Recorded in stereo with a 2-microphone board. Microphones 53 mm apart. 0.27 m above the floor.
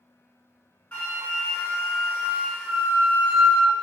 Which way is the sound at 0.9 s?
25° left (ahead or behind).